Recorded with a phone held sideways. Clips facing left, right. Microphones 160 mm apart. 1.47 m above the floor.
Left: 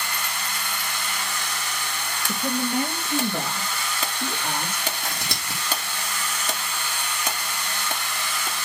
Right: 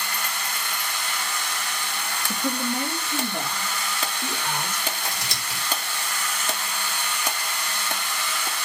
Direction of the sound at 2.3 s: 50° left (ahead or behind).